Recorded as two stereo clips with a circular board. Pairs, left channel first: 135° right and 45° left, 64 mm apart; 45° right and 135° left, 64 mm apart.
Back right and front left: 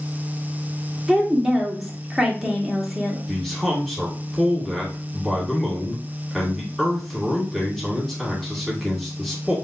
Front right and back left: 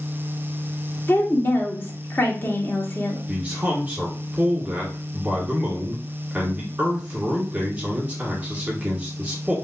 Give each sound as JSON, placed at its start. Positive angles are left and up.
{"t": 1.1, "sound": "a woman speaking", "azimuth_deg": -35, "distance_m": 0.9}
{"t": 3.3, "sound": "a man speaking", "azimuth_deg": 150, "distance_m": 1.3}